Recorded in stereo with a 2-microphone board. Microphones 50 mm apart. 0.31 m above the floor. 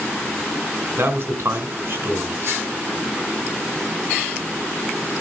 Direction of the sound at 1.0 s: 50° right (ahead or behind).